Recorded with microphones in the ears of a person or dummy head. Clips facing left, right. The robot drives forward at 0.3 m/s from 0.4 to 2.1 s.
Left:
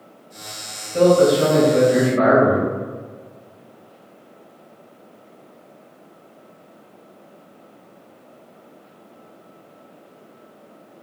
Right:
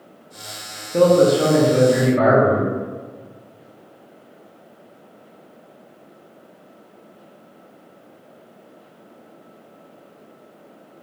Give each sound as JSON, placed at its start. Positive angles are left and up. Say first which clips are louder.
{"t": 0.9, "sound": "a man speaking", "louder": "even", "side_deg": -55, "distance_m": 0.8}